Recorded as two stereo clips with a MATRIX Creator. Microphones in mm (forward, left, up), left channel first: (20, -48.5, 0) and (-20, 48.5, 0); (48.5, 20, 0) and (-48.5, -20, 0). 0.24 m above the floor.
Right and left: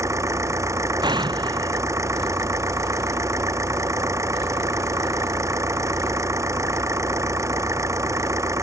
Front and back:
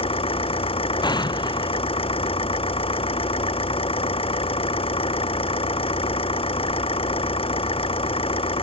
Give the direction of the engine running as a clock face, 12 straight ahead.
10 o'clock.